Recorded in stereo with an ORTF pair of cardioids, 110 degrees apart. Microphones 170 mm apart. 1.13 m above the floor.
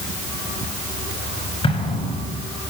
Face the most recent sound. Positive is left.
turn(degrees=30)